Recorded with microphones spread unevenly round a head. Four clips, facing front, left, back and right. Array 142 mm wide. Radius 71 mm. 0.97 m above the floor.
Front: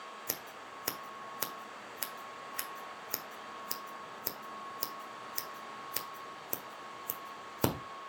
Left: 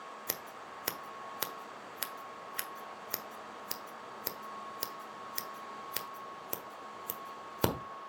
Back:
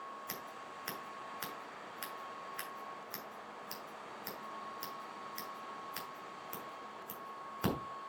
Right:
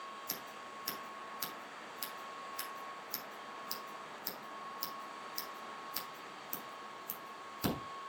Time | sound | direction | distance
0.3 | scissors | 45° left | 1.3 m